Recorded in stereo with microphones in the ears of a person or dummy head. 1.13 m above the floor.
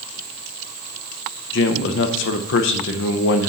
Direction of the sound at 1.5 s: 60° left (ahead or behind).